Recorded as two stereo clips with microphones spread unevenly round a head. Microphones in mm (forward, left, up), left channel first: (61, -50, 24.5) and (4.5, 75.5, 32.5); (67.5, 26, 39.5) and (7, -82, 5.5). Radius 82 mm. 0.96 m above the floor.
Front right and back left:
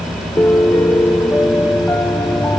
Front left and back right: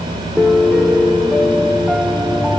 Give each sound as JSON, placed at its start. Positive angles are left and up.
{"t": 0.4, "sound": "a piano", "azimuth_deg": -80, "distance_m": 0.7}